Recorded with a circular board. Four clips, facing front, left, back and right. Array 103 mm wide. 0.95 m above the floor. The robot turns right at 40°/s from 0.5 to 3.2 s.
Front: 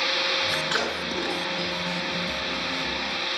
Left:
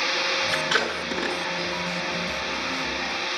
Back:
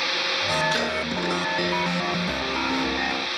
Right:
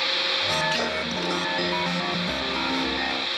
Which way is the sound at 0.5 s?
55° left.